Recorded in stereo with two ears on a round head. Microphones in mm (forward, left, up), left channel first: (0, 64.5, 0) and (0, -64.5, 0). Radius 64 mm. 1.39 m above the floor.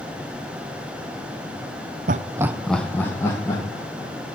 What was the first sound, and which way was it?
Laughter, 60° right (ahead or behind).